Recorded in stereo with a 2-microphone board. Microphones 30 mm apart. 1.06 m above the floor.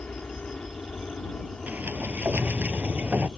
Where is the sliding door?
80° right.